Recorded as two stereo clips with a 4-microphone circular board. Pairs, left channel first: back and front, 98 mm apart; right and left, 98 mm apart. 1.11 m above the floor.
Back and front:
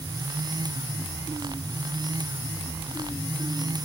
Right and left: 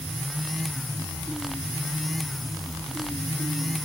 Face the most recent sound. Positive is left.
No sound to turn to.